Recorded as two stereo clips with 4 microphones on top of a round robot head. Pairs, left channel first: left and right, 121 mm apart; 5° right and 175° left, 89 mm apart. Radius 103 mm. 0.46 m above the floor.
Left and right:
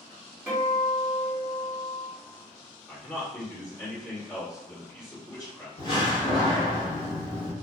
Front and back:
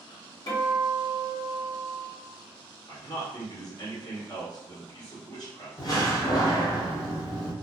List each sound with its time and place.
0.5 s a guitar: 10° right, 1.8 m
2.9 s a man speaking: 30° left, 1.7 m
5.8 s a door slam: 40° left, 0.9 m